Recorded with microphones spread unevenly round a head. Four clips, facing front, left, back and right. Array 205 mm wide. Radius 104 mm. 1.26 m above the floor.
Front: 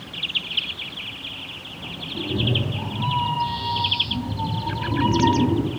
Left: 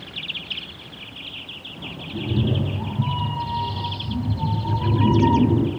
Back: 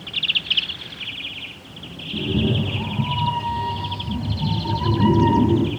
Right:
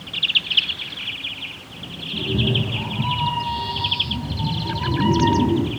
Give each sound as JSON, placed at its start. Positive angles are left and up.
{"t": 2.1, "sound": "a cat meowing", "azimuth_deg": 165, "distance_m": 9.5}